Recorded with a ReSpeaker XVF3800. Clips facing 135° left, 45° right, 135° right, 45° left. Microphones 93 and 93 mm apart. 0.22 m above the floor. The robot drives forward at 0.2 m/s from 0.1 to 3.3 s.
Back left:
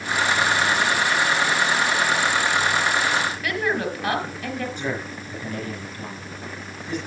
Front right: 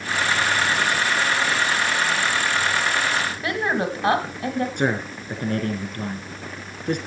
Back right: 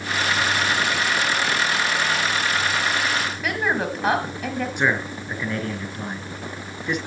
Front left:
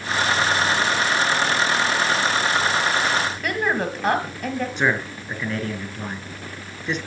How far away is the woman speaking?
About 1.4 m.